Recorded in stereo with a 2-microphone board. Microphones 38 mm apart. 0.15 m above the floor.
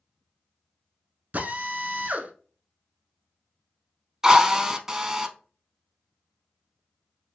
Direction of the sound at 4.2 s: 15° right (ahead or behind).